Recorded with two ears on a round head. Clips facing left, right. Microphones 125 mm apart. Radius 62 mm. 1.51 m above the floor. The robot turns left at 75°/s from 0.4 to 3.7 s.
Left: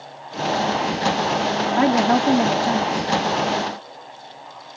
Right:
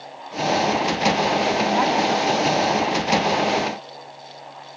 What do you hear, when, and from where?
1.8 s a woman speaking: 125° left; by 3.1 s 25° left